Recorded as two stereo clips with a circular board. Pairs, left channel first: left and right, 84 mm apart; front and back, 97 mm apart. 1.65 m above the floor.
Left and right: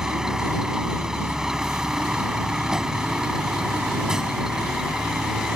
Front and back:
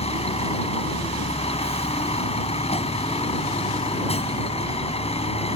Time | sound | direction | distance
0.0 | a vehicle | 5° right | ?